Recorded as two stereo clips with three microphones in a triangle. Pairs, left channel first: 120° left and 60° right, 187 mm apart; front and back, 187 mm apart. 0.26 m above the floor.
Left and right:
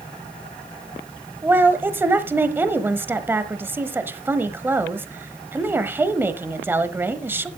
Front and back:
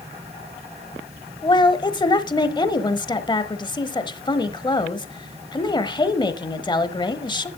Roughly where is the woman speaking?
Ahead.